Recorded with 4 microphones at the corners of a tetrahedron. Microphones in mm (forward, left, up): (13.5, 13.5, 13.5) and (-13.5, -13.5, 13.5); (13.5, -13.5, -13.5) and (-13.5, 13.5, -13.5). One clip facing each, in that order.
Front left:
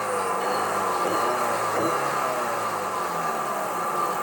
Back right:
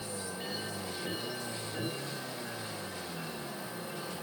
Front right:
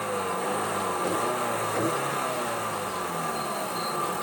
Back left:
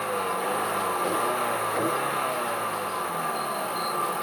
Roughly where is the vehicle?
Ahead left.